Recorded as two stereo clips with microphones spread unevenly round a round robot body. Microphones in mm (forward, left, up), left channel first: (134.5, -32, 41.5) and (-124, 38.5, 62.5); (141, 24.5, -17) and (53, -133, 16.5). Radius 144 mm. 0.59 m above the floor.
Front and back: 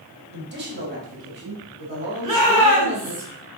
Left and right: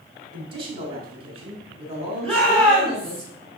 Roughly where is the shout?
Behind.